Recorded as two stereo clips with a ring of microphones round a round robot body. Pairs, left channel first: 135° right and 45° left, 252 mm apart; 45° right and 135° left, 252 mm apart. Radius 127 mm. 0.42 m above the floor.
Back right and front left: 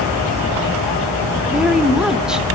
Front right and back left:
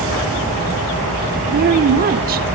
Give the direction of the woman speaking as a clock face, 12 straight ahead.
8 o'clock.